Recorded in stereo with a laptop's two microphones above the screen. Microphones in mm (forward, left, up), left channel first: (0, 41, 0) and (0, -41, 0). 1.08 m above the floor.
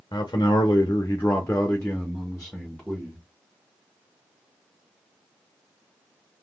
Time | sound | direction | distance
0.1 | a man speaking | 55° left (ahead or behind) | 0.7 m